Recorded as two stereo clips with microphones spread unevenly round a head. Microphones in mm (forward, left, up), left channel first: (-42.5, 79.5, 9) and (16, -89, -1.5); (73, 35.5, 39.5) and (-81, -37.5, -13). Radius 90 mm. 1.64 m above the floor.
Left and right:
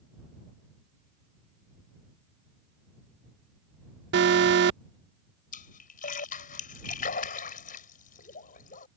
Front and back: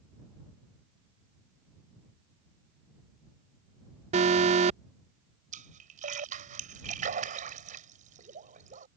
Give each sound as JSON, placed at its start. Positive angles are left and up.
{"t": 4.1, "sound": "an alarm", "azimuth_deg": -95}
{"t": 5.5, "sound": "a splash", "azimuth_deg": 155}